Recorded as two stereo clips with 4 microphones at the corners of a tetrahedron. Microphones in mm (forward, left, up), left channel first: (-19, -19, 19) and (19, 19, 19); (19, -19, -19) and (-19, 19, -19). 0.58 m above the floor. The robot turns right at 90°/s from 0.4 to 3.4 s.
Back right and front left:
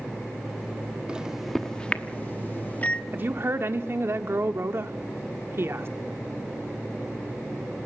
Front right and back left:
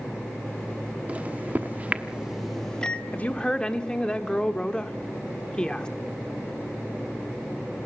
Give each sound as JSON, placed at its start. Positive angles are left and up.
{"t": 1.1, "sound": "a microwave", "azimuth_deg": 100, "distance_m": 1.1}
{"t": 3.1, "sound": "a woman speaking", "azimuth_deg": 0, "distance_m": 1.3}